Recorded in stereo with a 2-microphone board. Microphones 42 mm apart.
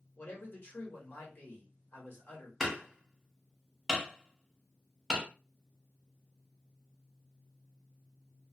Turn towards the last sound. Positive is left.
turn(degrees=0)  # may be behind; listen again after turning